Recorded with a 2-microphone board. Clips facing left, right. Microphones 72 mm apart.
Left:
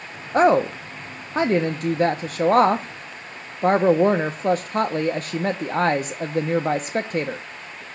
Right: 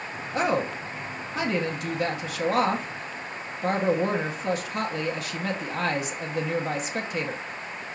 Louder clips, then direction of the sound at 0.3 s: Left 9 dB; 40° left (ahead or behind).